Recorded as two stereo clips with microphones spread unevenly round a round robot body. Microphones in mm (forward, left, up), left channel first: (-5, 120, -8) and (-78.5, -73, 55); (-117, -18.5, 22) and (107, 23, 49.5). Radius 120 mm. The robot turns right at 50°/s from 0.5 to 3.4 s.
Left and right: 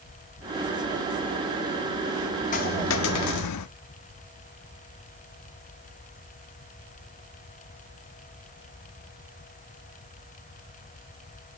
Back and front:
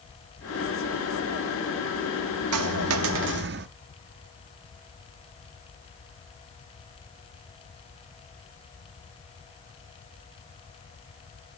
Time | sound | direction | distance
2.5 | a dropped coin | 5° left | 0.5 m